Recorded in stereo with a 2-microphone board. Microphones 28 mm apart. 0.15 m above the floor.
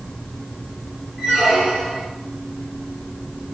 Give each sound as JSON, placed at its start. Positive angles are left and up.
{"t": 1.2, "sound": "a squeak", "side_deg": -20, "distance_m": 1.9}